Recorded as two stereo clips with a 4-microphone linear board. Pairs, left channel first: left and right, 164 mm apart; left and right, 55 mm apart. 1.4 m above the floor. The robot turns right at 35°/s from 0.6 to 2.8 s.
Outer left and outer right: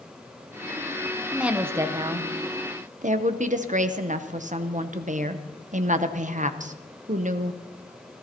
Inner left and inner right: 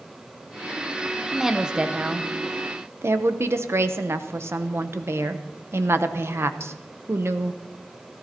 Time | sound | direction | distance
1.3 | a woman speaking | 175° right | 0.7 m